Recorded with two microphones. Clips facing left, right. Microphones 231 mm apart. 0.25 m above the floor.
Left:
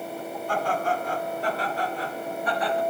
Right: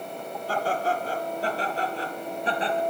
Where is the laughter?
35° right (ahead or behind), 8.5 m; by 2.8 s 25° right (ahead or behind), 6 m.